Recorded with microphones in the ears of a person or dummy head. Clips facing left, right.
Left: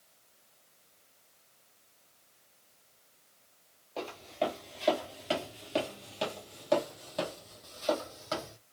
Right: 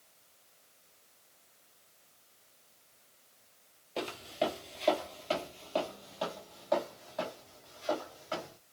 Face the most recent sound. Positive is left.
turn(degrees=60)  # may be behind; listen again after turning